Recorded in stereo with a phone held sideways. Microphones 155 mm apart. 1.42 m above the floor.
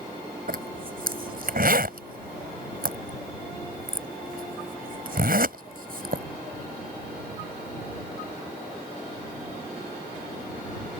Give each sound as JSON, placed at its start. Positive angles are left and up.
{"t": 0.5, "sound": "a zipper", "side_deg": -65}